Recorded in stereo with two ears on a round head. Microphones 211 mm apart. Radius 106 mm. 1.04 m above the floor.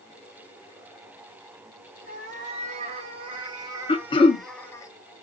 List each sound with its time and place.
2.0 s a cat meowing: 35° right (ahead or behind), 2 m; by 4.9 s 15° left (ahead or behind), 0.9 m
3.9 s throat clearing: 20° left (ahead or behind), 1.0 m